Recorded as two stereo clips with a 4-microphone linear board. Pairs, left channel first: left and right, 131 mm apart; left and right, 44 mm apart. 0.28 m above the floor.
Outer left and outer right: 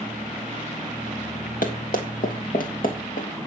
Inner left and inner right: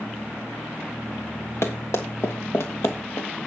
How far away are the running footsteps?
About 2.5 m.